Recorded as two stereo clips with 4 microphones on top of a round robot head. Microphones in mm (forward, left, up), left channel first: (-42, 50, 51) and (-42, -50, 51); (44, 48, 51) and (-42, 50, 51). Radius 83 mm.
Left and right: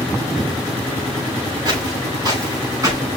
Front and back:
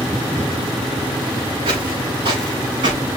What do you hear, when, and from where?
1.6 s footsteps: 135° right, 6 m; by 3.0 s 140° right, 5 m